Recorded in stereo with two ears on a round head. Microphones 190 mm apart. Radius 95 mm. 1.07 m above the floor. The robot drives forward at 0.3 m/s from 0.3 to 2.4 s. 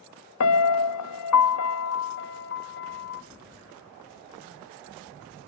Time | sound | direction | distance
0.4 | a piano | 65° left (ahead or behind) | 0.5 m